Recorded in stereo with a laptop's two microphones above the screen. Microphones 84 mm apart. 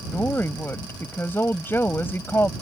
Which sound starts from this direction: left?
A woman speaking, at 0.1 s.